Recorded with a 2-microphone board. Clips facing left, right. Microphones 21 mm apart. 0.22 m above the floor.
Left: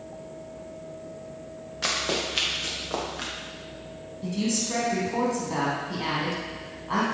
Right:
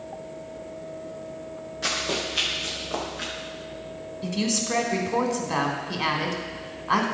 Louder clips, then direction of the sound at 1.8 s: Even; 30° left (ahead or behind).